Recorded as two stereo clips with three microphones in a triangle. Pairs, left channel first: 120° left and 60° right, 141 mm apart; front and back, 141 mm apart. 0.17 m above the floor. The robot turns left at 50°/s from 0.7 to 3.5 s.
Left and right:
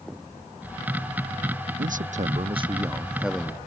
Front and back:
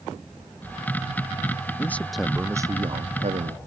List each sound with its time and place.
1.8 s a man speaking: 70° right; by 3.6 s 160° right